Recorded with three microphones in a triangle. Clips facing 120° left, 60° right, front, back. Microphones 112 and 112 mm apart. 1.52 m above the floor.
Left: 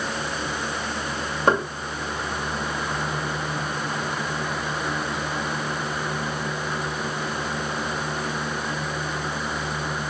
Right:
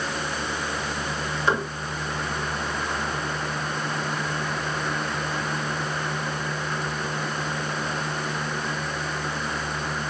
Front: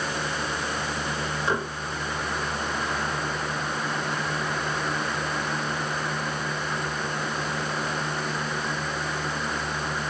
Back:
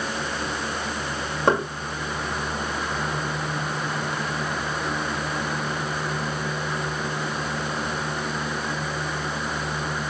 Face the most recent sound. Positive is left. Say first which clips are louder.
# left 4 dB, back 7 dB
turn(degrees=155)